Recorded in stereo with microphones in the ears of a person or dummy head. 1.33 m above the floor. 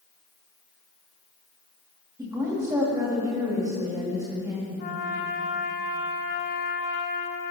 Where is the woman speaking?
10° right (ahead or behind), 2.5 m.